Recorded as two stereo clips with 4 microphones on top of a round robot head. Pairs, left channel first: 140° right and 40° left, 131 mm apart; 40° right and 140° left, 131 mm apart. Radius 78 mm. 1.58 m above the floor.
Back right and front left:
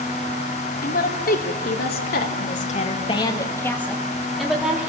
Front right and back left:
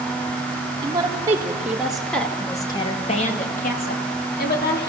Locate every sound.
0.8 s a woman speaking: 155° right, 3.5 m; by 4.9 s 40° right, 4 m